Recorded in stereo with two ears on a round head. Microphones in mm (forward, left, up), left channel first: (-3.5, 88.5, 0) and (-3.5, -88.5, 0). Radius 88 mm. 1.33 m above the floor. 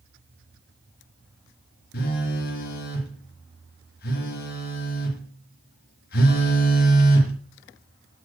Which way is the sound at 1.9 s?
50° left (ahead or behind).